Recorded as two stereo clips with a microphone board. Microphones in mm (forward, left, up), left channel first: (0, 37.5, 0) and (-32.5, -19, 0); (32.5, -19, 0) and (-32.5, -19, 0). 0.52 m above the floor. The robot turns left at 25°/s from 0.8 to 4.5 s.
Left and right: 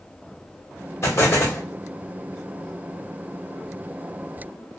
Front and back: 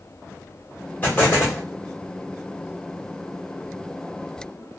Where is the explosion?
50° left, 1.3 m; by 1.6 s 35° left, 1.3 m.